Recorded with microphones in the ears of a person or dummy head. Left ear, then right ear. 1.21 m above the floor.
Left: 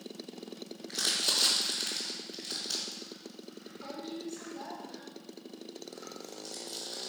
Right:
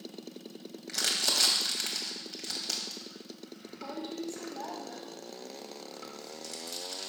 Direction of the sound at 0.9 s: 55° right (ahead or behind).